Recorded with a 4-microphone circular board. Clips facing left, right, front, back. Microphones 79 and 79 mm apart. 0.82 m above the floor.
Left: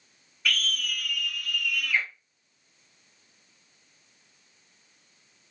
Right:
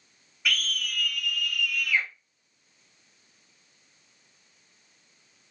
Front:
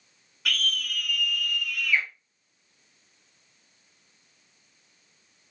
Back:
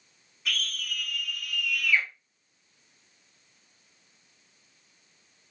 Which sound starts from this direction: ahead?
A scream, at 0.5 s.